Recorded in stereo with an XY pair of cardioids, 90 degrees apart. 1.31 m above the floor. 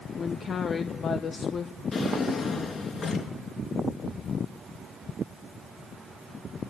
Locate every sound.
0.2 s a woman speaking: 55° left, 1.6 m
1.9 s a drawer: 55° left, 5 m